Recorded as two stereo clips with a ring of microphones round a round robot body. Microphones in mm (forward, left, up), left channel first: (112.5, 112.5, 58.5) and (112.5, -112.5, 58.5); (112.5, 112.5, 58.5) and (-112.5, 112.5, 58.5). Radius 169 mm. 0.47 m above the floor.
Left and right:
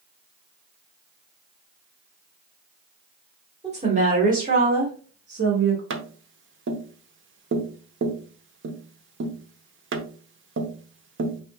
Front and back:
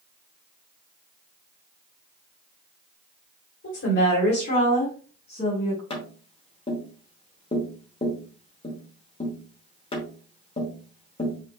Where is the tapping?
65° right, 0.9 m.